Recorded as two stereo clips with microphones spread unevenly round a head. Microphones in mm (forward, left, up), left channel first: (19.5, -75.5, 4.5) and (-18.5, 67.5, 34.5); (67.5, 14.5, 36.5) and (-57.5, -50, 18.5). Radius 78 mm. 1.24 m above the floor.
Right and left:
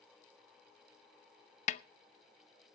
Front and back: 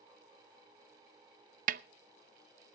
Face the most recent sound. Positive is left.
turn(degrees=-125)